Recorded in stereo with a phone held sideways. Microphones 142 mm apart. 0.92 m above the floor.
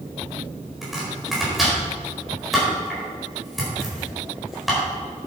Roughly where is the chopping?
Centre.